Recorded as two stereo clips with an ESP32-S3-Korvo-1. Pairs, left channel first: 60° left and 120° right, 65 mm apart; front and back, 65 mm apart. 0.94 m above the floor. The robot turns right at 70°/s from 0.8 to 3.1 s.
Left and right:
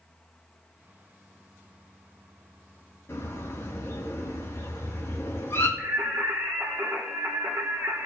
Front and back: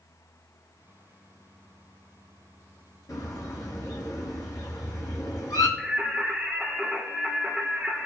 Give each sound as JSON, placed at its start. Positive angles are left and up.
{"t": 3.1, "sound": "a bird", "azimuth_deg": 15, "distance_m": 3.0}
{"t": 5.8, "sound": "singing", "azimuth_deg": -90, "distance_m": 2.0}